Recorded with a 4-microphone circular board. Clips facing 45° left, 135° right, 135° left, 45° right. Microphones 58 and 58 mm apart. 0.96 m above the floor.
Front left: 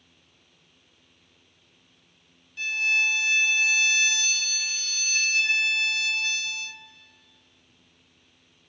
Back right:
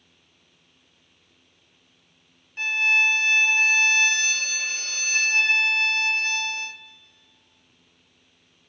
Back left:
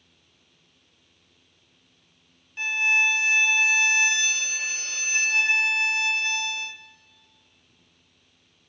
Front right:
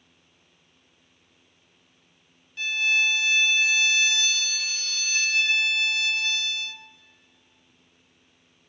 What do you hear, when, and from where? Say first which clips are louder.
2.6 s a violin: back right 4 dB, back left 2 dB; 165° right, 0.6 m